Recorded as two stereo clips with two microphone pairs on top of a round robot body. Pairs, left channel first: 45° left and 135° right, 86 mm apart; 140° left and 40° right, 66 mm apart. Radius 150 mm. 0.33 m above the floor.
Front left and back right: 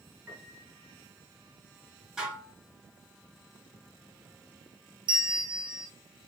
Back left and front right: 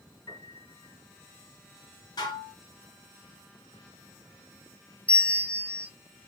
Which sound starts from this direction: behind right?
A bell, at 5.1 s.